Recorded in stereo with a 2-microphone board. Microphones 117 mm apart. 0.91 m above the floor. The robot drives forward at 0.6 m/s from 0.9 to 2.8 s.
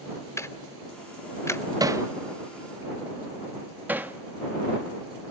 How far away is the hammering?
About 0.5 m.